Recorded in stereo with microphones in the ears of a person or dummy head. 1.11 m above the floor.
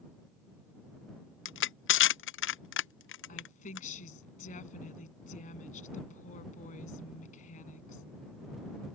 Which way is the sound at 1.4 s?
60° left (ahead or behind).